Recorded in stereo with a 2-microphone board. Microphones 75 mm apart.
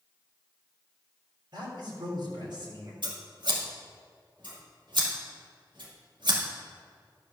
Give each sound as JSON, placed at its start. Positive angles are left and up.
{"t": 1.5, "sound": "a man speaking", "side_deg": -65, "distance_m": 3.5}
{"t": 3.0, "sound": "scissors", "side_deg": -70, "distance_m": 2.0}